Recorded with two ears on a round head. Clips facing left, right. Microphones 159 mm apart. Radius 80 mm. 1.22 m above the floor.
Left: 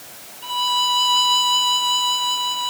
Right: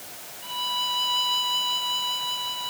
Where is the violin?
65° left (ahead or behind).